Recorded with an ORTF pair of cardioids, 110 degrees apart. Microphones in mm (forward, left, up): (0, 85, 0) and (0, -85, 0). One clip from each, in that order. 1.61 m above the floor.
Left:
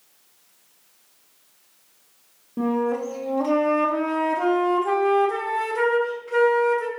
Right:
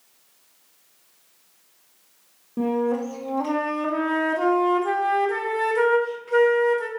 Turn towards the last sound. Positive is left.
turn(degrees=-5)